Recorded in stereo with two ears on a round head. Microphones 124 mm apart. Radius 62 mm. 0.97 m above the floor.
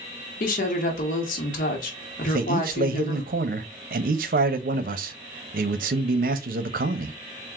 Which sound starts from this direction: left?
A woman speaking, at 0.4 s.